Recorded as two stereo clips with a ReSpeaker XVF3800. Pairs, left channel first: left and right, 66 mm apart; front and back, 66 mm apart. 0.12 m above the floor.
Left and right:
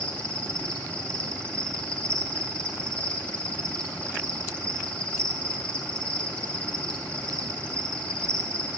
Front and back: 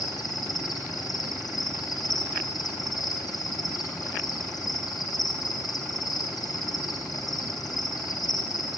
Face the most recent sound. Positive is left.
turn(degrees=20)